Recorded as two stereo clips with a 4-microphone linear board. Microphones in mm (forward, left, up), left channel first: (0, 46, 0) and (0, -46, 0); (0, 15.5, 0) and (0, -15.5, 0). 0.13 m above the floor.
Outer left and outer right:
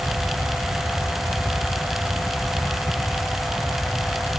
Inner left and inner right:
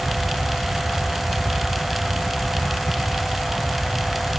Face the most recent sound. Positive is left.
No sound to turn to.